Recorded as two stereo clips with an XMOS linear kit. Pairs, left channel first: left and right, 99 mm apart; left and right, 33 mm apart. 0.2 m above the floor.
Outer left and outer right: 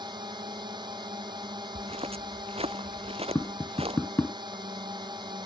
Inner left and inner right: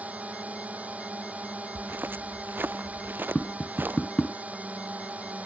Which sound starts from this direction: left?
Tapping, at 3.4 s.